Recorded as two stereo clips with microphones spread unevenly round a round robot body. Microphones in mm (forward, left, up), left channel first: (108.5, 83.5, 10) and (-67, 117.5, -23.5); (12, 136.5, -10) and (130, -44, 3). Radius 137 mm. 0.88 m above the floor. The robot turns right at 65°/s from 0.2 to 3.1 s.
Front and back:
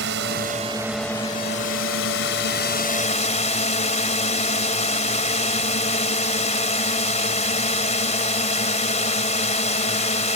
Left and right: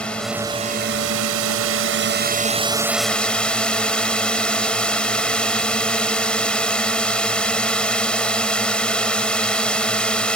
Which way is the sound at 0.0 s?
150° right.